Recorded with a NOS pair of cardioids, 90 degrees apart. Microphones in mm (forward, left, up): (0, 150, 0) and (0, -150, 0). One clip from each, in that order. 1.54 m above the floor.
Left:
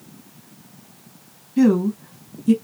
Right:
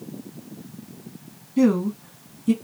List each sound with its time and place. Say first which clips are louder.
1.6 s a woman speaking: left 3 dB; 10° left, 1.4 m